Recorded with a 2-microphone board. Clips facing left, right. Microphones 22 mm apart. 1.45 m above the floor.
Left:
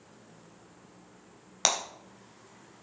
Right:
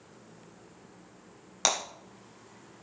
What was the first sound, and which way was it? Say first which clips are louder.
Breaking glass: even; 10° left (ahead or behind).